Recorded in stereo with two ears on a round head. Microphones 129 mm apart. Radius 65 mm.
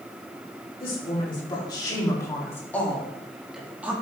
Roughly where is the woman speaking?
Left.